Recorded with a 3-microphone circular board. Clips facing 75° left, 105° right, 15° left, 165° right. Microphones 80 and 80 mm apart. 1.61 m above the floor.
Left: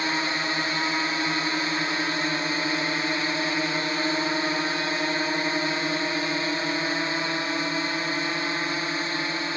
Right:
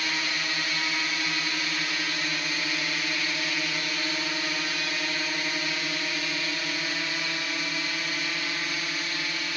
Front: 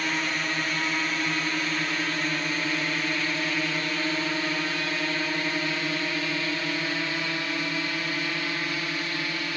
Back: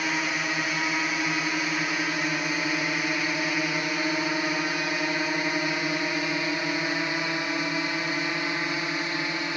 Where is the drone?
120° left; by 9.6 s 130° left.